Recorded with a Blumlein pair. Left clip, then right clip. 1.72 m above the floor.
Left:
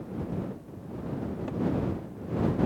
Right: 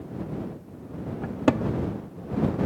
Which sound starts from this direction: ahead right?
A cupboard door, at 1.2 s.